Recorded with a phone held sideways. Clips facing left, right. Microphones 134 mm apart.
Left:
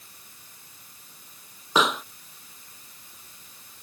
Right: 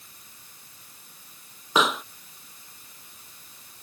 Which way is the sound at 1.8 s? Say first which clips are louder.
Even; centre (ahead or behind).